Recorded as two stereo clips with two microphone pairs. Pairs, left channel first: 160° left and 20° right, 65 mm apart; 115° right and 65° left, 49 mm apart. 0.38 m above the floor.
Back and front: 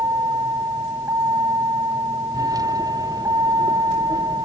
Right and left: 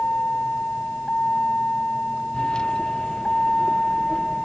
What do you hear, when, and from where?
0.0 s a vehicle: 50° right; by 4.5 s 30° right